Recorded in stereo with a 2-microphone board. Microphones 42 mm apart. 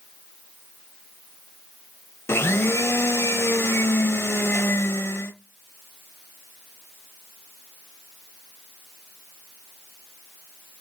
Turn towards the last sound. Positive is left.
turn(degrees=75)  # may be behind; listen again after turning